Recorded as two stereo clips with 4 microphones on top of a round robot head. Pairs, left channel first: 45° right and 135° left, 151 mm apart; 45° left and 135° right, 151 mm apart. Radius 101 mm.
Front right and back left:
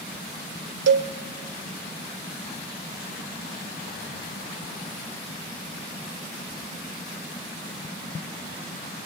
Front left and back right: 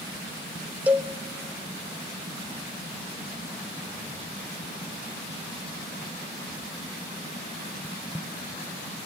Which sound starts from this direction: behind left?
A cowbell, at 0.9 s.